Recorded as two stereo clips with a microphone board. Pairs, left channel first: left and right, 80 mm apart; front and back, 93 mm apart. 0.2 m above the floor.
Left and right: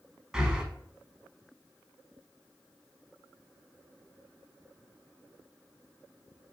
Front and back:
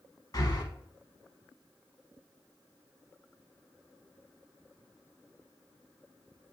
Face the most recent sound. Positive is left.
turn(degrees=-10)